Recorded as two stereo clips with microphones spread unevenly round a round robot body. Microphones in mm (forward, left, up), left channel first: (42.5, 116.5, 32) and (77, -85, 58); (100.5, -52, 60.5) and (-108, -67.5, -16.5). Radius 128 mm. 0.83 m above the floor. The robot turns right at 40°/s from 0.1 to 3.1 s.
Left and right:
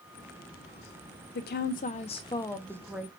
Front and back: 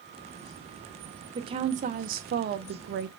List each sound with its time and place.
1.4 s a woman speaking: 125° left, 0.7 m; by 3.1 s 165° right, 0.7 m